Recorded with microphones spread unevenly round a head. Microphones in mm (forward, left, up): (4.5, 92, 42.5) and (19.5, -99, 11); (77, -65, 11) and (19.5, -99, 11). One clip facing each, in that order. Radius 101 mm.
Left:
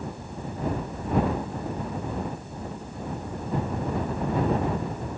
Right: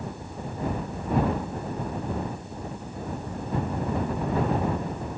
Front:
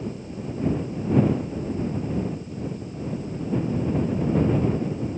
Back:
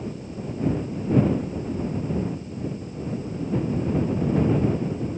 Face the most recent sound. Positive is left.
No sound to turn to.